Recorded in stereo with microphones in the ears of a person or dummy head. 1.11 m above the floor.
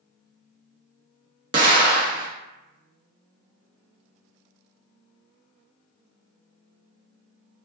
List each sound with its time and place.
1.5 s an explosion: 20° right (ahead or behind), 0.6 m